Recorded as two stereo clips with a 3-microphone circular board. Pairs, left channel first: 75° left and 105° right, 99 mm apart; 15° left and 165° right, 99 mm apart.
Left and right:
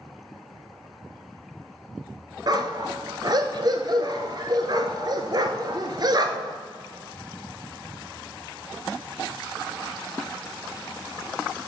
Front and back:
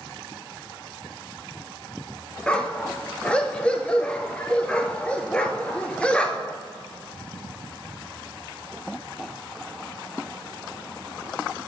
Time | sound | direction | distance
2.5 | a dog barking | 65° right | 0.9 m